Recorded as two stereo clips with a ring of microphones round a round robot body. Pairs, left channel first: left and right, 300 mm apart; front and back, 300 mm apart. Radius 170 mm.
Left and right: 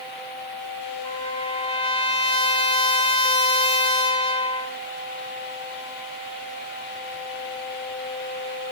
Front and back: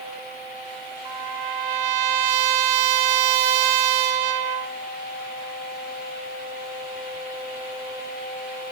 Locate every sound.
1.1 s a trumpet: 160° left, 1.9 m